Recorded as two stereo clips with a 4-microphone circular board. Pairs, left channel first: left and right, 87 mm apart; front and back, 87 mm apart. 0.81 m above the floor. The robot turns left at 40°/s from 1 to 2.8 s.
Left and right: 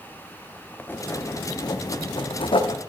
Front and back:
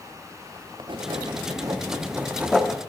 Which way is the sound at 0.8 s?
155° left.